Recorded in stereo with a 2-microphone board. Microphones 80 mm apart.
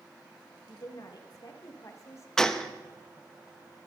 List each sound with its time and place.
0.7 s a woman speaking: 60° left (ahead or behind), 2.5 m; by 2.3 s 35° left (ahead or behind), 1.9 m
2.4 s a gunshot: 10° left (ahead or behind), 0.9 m